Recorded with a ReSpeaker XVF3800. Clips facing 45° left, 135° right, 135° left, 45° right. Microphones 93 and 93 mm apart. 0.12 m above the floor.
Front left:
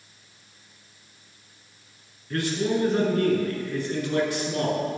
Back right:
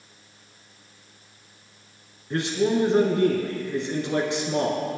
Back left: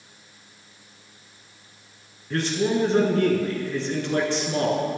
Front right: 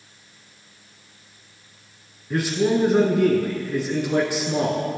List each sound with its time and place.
2.3 s a man speaking: 110° right, 1.8 m